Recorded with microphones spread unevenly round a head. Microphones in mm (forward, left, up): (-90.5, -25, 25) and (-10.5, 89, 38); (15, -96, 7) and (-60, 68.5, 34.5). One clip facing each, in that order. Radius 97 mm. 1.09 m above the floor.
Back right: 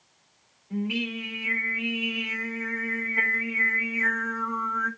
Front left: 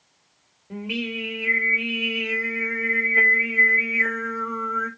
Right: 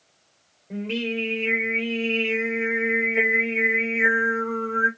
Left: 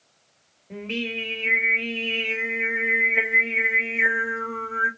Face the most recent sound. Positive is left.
turn(degrees=25)